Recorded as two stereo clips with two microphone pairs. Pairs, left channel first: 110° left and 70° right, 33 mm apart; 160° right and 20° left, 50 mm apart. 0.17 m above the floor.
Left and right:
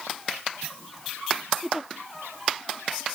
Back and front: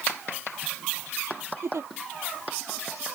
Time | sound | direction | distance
1.6 | a giggle | 5° left | ?